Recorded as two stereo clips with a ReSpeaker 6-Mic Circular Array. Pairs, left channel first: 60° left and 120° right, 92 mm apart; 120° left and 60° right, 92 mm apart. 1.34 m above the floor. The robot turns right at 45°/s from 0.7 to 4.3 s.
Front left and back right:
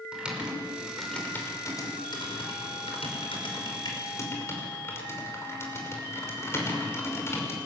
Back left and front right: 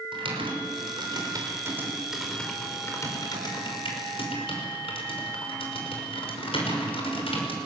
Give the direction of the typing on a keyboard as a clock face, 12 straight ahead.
1 o'clock.